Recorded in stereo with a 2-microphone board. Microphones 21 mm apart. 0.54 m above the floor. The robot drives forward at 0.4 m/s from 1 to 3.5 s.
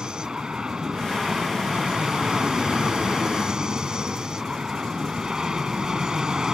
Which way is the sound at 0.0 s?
45° right (ahead or behind).